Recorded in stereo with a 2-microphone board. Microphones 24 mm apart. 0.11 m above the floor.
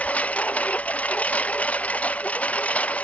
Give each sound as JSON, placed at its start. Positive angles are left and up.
{"t": 0.0, "sound": "a lawn mower", "side_deg": 90}